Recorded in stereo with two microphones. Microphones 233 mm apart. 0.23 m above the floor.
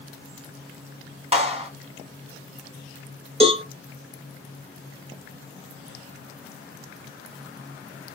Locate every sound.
1.3 s a clap: 30° right (ahead or behind), 1.5 m
3.4 s a cowbell: 25° right (ahead or behind), 0.9 m